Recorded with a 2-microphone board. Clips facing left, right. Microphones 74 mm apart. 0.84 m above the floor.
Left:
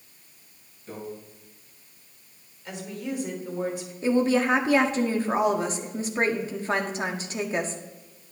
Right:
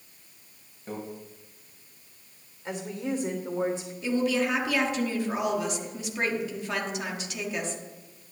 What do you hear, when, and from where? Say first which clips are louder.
0.9 s a microwave: right 3 dB; 35° right (ahead or behind), 4 m
2.6 s a woman speaking: right 2 dB; 30° right (ahead or behind), 2.5 m
4.0 s a woman speaking: left 4 dB; 35° left (ahead or behind), 1.5 m